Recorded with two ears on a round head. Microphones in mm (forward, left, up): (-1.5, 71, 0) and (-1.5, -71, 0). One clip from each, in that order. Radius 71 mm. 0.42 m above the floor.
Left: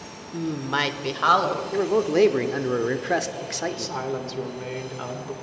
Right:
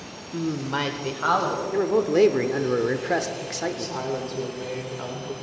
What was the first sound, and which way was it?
A woman speaking, 15° right (ahead or behind).